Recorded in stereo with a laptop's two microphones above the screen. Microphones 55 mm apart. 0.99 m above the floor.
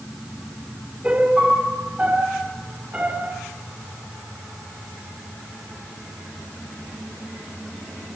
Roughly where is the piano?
Right.